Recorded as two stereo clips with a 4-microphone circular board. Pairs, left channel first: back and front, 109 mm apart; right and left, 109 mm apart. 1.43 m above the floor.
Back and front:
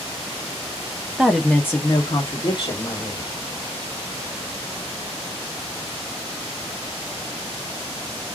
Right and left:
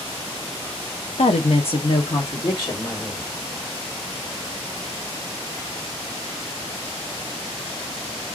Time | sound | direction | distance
1.2 | a woman speaking | 85° right | 0.6 m